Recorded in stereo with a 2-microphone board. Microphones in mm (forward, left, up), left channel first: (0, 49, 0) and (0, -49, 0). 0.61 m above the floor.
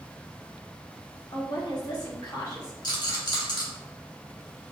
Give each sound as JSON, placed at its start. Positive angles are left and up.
{"t": 1.3, "sound": "a woman speaking", "side_deg": 45, "distance_m": 1.1}
{"t": 2.8, "sound": "a rattle", "side_deg": 50, "distance_m": 1.1}